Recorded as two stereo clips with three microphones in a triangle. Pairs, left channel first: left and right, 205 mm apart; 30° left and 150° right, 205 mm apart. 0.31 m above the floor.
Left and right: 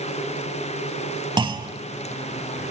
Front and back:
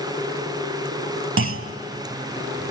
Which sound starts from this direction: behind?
A clunk, at 1.4 s.